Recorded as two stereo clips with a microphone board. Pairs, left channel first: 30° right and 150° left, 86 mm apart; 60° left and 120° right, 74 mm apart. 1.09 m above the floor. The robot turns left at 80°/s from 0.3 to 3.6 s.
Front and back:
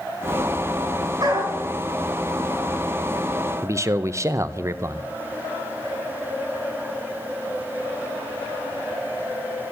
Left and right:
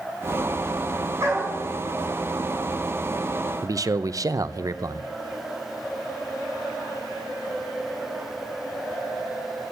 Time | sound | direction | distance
1.2 | a dog barking | 165° right | 4 m
3.6 | a man speaking | 160° right | 0.6 m